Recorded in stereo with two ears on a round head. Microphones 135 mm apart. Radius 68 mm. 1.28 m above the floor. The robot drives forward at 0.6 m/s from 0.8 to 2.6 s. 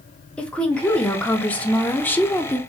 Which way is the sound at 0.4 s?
10° left (ahead or behind).